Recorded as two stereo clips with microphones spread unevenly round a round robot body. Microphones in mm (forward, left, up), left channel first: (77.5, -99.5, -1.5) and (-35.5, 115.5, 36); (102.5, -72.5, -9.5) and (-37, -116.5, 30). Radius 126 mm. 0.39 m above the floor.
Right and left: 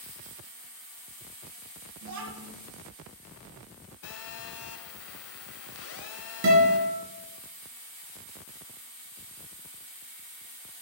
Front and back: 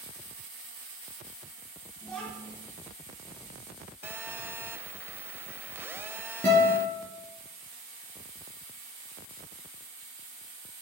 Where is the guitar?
95° left, 3 m.